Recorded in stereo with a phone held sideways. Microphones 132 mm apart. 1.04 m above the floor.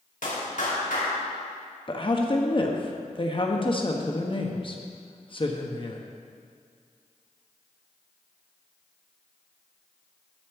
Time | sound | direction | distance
0.2 | a clap | 80° left | 2.5 m
1.9 | a woman speaking | 40° left (ahead or behind) | 1.0 m